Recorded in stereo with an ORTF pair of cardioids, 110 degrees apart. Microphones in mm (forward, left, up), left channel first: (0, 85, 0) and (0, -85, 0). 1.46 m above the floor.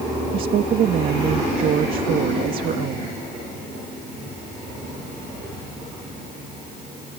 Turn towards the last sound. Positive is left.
turn(degrees=-55)